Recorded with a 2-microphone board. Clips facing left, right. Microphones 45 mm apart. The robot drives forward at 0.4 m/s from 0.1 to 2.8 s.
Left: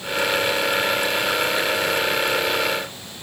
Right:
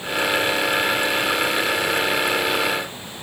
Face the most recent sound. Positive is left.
No sound to turn to.